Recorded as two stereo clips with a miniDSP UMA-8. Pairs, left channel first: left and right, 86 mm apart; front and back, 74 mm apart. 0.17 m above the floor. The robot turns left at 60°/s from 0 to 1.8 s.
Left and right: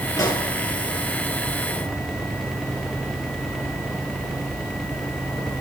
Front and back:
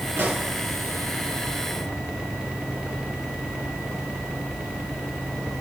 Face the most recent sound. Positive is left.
turn(degrees=30)